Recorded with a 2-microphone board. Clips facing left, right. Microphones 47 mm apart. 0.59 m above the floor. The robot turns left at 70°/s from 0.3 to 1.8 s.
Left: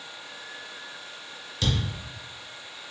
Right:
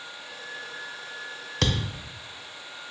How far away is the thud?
About 0.5 m.